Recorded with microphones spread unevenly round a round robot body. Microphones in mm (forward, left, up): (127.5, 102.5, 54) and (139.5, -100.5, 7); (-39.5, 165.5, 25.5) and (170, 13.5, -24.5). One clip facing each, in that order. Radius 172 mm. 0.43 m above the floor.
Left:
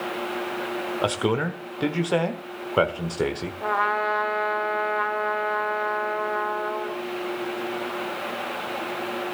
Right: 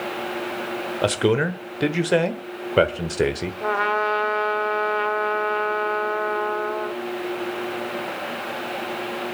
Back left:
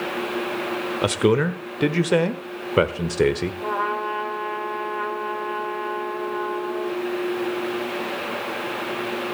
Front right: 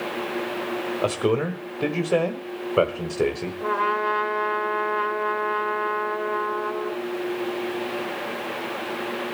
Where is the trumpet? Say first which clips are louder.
Right 4 dB, front right 1 dB; 75° right, 1.8 m.